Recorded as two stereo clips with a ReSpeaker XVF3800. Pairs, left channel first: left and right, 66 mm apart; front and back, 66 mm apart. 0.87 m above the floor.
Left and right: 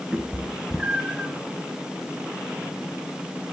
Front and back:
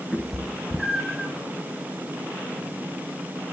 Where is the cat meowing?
95° right, 0.8 m.